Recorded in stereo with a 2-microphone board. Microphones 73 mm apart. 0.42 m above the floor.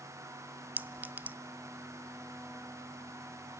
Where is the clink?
25° right (ahead or behind), 0.6 m.